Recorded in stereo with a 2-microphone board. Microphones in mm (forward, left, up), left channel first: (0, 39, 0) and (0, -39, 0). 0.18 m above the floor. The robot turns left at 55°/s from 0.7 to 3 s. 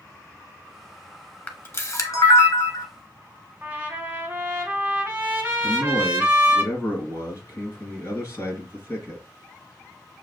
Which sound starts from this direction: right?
A trumpet, at 3.6 s.